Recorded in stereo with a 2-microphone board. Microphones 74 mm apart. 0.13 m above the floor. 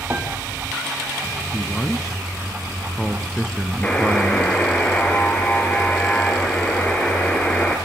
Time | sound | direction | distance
0.1 | a piano | 25° right (ahead or behind) | 6 m
1.5 | a man speaking | 5° left (ahead or behind) | 1.5 m
3.8 | a buzzer | 15° left (ahead or behind) | 3.5 m